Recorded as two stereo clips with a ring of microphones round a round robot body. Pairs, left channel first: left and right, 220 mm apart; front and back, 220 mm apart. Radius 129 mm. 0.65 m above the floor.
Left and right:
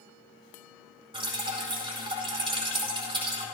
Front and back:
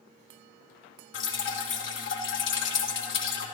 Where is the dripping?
25° right, 2.5 m.